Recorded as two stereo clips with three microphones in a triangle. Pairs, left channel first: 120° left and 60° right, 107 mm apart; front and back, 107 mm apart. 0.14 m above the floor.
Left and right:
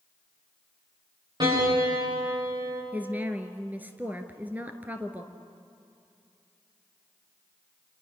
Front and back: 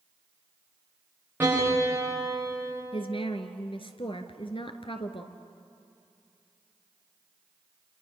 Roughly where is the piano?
Right.